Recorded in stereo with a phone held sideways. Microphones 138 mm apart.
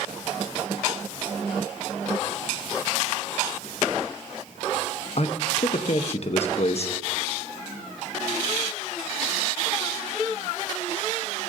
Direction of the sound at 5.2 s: 50° left (ahead or behind).